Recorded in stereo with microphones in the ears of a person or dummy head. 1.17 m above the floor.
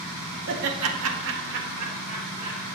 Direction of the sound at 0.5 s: 65° right (ahead or behind).